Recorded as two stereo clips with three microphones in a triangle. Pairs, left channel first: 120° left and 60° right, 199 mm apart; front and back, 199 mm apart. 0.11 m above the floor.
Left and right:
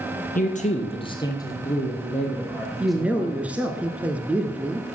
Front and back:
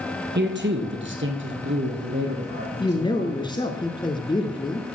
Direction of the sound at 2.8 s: 10° left.